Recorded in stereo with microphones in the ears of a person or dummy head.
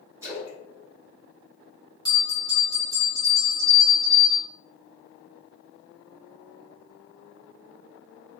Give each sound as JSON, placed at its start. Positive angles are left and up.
{"t": 0.2, "sound": "a splash", "side_deg": -15, "distance_m": 1.0}
{"t": 2.0, "sound": "a bell", "side_deg": 25, "distance_m": 1.3}